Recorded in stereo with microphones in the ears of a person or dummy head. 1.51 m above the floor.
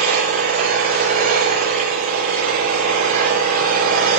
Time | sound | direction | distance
0.0 | an engine running | 50° right (ahead or behind) | 9 m